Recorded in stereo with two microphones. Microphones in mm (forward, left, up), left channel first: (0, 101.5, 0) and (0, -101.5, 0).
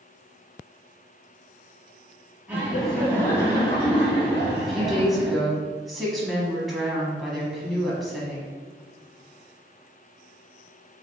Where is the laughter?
10° right (ahead or behind), 1.5 m; by 5.4 s 50° left (ahead or behind), 2.5 m.